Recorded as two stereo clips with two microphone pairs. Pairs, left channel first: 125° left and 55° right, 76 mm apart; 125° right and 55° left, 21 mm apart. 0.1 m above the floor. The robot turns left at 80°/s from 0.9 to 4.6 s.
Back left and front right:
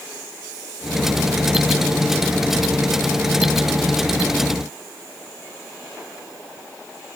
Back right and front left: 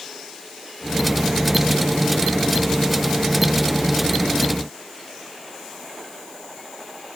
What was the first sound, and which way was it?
Only background noise.